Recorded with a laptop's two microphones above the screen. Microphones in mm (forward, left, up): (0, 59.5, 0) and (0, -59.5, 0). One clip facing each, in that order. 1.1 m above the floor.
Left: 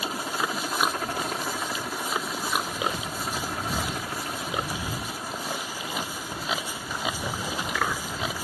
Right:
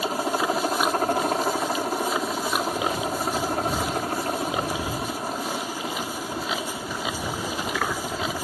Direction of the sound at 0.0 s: 45° right (ahead or behind).